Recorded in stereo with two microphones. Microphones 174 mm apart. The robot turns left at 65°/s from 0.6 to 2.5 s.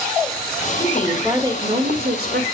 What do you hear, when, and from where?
0.8 s a woman speaking: 20° left, 3 m; by 2.5 s 85° right, 3 m